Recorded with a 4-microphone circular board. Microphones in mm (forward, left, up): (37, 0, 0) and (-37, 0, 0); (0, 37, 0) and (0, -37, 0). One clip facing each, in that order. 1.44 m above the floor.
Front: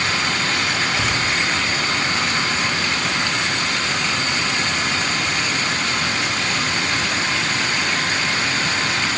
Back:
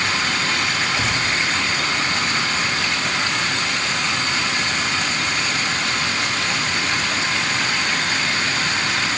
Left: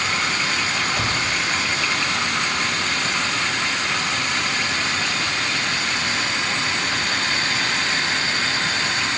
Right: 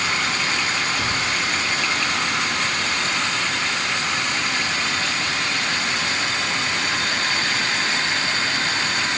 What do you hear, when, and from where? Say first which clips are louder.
1.0 s a cupboard door: front 1 dB, left 1 dB; 80° left, 3 m